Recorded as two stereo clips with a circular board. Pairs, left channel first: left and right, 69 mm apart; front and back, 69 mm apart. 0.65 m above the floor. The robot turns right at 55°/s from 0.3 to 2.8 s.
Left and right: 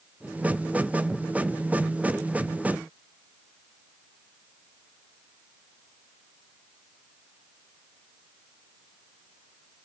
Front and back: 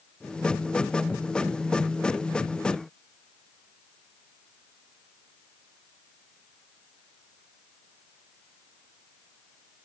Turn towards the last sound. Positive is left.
No sound to turn to.